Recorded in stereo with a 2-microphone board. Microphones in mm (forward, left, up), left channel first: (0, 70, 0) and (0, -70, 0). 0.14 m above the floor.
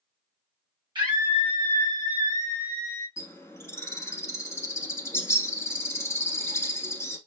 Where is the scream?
35° right (ahead or behind), 3.5 m; by 3.1 s 30° right (ahead or behind), 4.5 m.